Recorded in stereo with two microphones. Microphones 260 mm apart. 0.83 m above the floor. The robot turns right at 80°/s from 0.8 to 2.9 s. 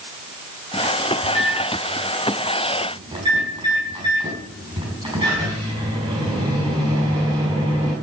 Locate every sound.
1.2 s a microwave: 65° left, 5.5 m; by 7.9 s 160° right, 5.5 m